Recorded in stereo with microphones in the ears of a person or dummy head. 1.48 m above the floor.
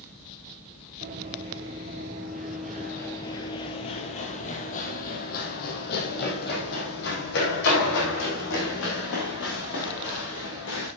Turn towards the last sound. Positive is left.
turn(degrees=65)  # may be behind; listen again after turning